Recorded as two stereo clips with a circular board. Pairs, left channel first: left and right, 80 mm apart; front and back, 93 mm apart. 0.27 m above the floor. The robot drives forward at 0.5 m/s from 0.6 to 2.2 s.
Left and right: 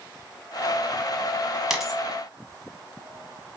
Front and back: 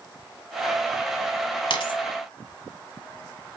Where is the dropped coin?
5° right, 1.0 m.